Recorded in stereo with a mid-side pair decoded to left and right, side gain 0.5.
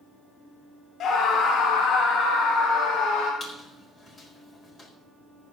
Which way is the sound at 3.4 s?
40° left.